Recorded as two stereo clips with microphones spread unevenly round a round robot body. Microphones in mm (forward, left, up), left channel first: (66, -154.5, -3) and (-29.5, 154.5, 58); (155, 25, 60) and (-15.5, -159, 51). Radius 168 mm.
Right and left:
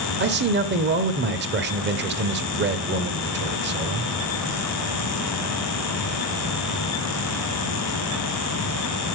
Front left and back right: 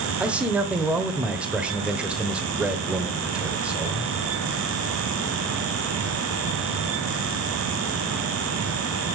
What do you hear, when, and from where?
0.2 s a man speaking: 150° left, 1.0 m